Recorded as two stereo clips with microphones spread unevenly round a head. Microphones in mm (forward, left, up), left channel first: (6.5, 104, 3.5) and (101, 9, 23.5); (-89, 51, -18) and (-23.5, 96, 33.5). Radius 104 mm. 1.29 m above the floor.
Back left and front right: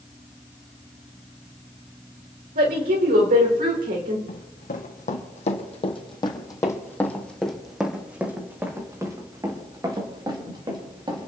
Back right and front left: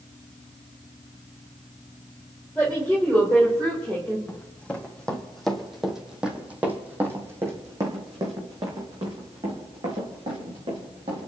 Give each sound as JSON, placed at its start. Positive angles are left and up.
{"t": 2.5, "sound": "a woman speaking", "azimuth_deg": -45, "distance_m": 4.5}
{"t": 4.3, "sound": "running footsteps", "azimuth_deg": 125, "distance_m": 3.0}